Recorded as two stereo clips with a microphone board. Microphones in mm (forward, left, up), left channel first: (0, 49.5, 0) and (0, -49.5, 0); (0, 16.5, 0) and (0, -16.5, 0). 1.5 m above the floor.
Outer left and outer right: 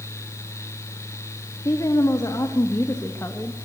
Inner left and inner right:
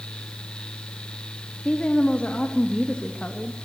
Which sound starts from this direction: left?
A woman speaking, at 1.6 s.